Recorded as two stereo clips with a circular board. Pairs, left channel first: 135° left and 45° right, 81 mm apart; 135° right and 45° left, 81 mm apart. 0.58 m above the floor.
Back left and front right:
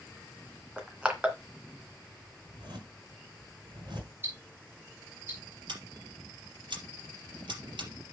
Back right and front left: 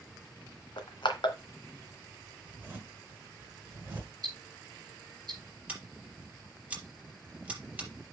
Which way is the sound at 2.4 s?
20° right.